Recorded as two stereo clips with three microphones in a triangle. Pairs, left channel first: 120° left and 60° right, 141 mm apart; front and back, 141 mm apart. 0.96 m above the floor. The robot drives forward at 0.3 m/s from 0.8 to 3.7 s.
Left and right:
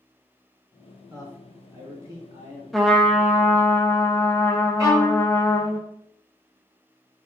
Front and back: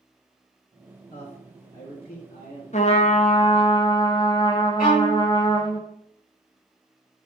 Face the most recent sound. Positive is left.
turn(degrees=5)